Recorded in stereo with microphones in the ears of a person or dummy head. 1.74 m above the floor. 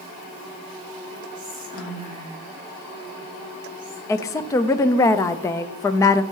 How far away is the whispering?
About 3.5 m.